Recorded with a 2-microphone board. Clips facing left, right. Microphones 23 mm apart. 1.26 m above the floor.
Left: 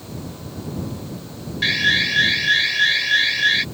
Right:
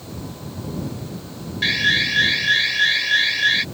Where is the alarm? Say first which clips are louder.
Even; 5° left (ahead or behind).